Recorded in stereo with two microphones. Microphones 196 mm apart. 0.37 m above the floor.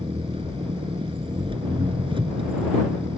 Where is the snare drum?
No snare drum in this recording.